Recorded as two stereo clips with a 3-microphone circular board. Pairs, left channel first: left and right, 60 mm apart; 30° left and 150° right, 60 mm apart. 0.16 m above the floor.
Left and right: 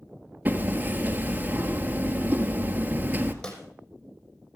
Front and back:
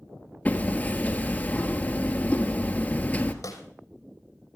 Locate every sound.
0.5 s hammering: 30° right, 1.6 m
3.4 s a snare drum: 20° left, 3.5 m